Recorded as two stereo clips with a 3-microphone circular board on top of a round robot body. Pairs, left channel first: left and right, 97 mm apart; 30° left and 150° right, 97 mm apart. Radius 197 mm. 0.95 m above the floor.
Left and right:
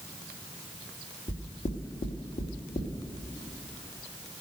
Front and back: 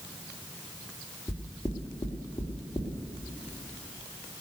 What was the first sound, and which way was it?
Knocking, 95° left.